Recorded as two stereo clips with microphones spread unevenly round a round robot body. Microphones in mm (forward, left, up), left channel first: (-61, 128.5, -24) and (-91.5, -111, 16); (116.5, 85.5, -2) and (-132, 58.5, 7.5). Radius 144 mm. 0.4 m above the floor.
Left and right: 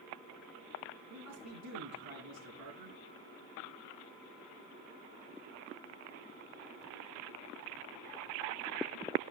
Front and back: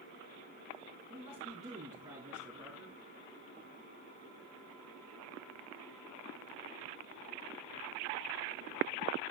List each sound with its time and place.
1.1 s a man speaking: 105° right, 3.5 m; by 3.0 s 90° right, 3.5 m